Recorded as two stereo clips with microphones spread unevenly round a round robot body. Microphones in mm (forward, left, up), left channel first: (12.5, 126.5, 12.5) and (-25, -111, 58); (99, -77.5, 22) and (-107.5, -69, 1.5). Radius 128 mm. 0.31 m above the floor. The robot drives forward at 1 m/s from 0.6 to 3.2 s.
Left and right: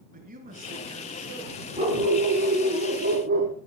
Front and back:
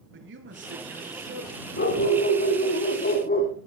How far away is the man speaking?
About 5 m.